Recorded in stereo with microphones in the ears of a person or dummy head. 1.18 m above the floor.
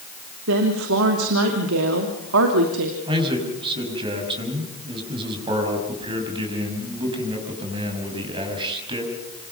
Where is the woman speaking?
70° right (ahead or behind), 2.5 m.